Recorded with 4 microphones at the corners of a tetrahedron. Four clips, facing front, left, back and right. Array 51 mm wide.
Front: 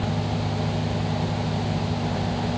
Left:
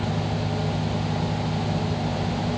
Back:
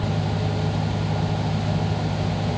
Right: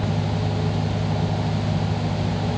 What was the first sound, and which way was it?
Only background noise.